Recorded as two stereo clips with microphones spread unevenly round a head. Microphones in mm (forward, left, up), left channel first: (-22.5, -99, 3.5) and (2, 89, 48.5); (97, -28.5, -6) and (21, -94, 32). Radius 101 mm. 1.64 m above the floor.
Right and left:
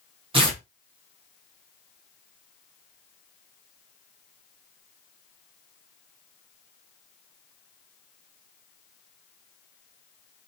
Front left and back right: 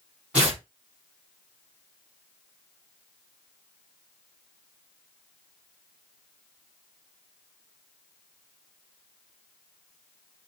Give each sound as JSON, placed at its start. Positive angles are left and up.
{"t": 0.3, "sound": "tearing paper", "azimuth_deg": 140, "distance_m": 1.2}